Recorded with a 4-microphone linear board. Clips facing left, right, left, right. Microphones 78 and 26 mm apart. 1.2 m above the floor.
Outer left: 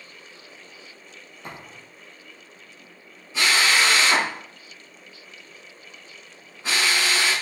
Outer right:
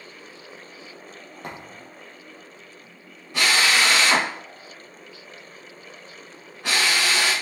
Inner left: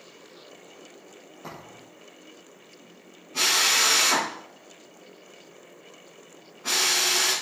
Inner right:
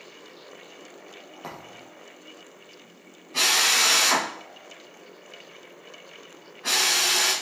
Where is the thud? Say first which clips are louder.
Outer right 2 dB, inner right 1 dB; 60° right (ahead or behind), 7 m.